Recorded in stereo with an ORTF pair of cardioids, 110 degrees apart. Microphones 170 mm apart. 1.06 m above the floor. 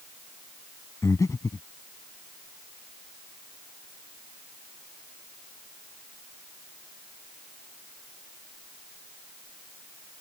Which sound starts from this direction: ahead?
Breathing, at 1.0 s.